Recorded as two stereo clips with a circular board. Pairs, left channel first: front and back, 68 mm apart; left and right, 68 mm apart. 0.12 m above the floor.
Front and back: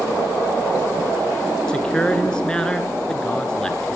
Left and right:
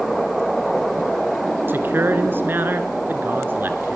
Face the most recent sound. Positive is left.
turn(degrees=-70)